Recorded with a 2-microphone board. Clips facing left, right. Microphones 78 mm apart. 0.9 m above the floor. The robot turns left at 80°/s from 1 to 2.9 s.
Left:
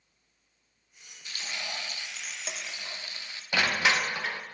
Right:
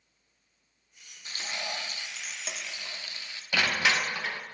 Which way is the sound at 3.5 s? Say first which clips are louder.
Left 1 dB; 15° left (ahead or behind).